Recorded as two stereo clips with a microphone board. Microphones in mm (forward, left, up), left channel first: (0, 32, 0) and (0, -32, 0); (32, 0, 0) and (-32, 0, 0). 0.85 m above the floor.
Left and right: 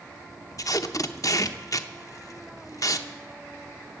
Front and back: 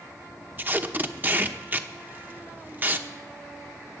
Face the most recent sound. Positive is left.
turn(degrees=120)